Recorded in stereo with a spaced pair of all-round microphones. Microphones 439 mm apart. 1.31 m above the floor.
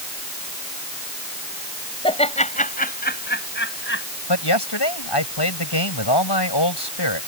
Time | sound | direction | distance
2.0 | laughter | 10° left (ahead or behind) | ?
4.3 | a man speaking | 65° left (ahead or behind) | ?